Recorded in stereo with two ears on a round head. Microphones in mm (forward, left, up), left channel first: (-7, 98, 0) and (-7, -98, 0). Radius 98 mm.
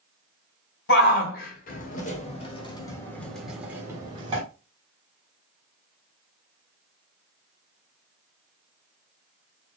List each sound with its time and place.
0.9 s a shout: 50° left (ahead or behind), 2 m; by 4.4 s 25° right (ahead or behind), 1.5 m